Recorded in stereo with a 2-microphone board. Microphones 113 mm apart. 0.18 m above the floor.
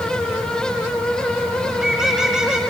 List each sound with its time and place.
1.7 s a bird: 5° right (ahead or behind), 2.0 m